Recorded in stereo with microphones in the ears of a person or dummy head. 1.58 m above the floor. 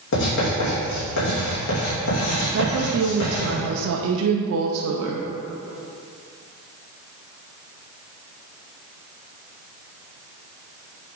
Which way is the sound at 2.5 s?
75° right (ahead or behind).